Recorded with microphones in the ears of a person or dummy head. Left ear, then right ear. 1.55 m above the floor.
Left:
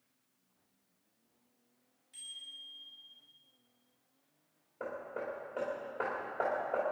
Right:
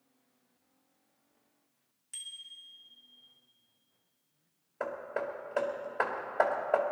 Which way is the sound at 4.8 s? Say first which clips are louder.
Right 5 dB; 65° right (ahead or behind).